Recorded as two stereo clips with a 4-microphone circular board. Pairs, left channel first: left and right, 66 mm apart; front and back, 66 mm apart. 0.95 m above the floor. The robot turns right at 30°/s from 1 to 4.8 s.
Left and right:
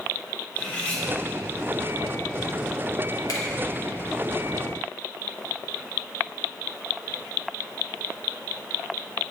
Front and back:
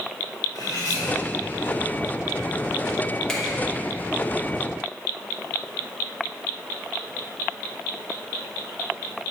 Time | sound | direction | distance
0.6 | cutlery clinking | 25° left | 1.4 m
3.3 | a finger snap | 80° left | 1.2 m